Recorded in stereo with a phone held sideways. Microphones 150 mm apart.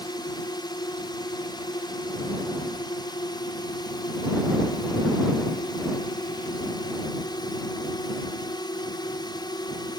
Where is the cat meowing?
No cat meowing in this recording.